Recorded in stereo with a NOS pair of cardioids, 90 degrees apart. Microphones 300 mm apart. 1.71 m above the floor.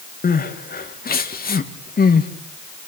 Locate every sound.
0.2 s crying: 30° left, 1.9 m